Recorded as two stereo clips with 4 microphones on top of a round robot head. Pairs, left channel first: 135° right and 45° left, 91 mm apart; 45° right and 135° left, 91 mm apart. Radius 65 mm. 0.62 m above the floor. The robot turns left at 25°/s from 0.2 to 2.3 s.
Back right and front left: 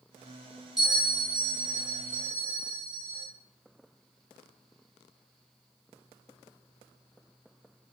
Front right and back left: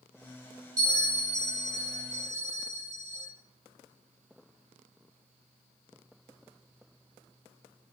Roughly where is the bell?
Behind left.